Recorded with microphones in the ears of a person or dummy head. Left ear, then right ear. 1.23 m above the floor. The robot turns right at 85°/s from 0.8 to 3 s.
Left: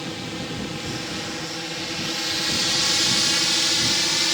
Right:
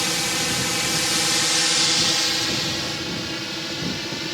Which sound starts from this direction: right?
A drone, at 0.0 s.